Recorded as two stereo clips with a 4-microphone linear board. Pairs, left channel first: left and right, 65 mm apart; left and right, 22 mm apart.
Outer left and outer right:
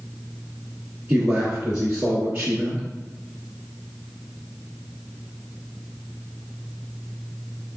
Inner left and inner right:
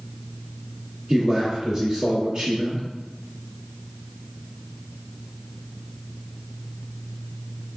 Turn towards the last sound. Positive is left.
turn(degrees=-30)  # may be behind; listen again after turning